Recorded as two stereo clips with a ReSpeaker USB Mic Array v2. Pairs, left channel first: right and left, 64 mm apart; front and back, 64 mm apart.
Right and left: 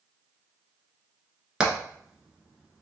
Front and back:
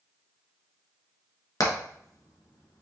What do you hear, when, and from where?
1.6 s hammering: 15° left, 1.0 m